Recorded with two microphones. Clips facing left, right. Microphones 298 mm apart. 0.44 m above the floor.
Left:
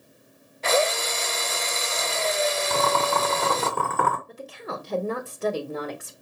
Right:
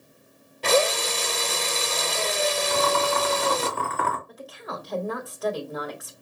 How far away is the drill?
About 0.6 m.